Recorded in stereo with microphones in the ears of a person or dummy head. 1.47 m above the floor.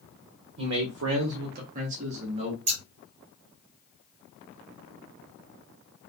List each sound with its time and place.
0.6 s a man speaking: 60° right (ahead or behind), 0.5 m; by 2.6 s 35° right (ahead or behind), 1.3 m
2.7 s scissors: 35° right (ahead or behind), 1.4 m